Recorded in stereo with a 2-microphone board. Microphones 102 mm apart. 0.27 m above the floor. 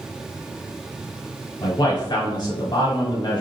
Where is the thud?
I don't hear a thud.